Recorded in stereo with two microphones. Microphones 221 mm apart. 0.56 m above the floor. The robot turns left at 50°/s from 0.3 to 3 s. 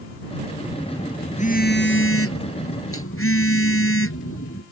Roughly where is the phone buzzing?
Behind.